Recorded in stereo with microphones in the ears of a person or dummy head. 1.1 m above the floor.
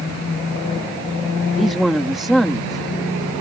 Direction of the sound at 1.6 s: Centre (ahead or behind).